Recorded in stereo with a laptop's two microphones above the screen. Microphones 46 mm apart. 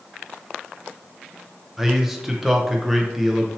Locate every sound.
1.8 s a man speaking: 5° right (ahead or behind), 0.5 m